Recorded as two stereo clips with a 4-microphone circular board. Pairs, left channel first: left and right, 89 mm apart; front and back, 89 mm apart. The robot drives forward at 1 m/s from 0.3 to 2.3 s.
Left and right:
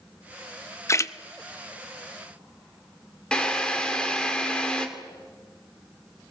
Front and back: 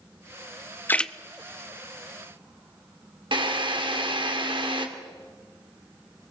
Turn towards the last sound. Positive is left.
turn(degrees=170)